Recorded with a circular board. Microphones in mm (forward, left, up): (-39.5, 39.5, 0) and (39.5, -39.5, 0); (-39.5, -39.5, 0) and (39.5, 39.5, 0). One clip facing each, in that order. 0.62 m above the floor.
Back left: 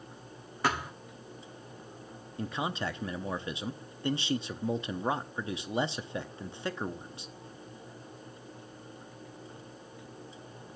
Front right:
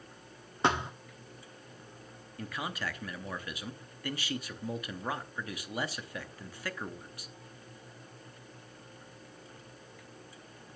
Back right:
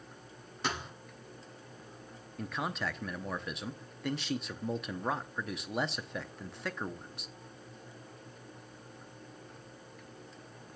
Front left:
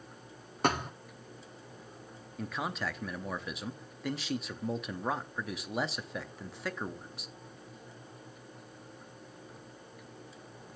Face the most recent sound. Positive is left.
turn(degrees=130)